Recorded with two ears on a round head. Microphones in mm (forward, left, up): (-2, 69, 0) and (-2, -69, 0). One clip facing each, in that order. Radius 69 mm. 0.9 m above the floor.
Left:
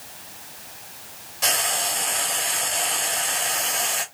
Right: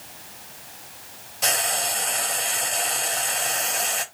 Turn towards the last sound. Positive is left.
turn(degrees=0)  # may be behind; listen again after turning